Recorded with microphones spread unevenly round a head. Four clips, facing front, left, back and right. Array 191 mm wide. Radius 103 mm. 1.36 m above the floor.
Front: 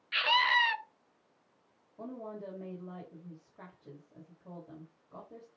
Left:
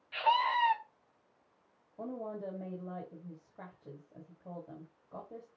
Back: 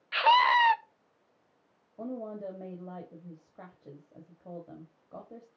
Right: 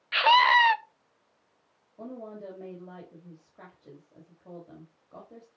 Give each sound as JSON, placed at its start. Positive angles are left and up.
{"t": 0.1, "sound": "a scream", "azimuth_deg": -95, "distance_m": 0.5}
{"t": 2.0, "sound": "a woman speaking", "azimuth_deg": 180, "distance_m": 2.0}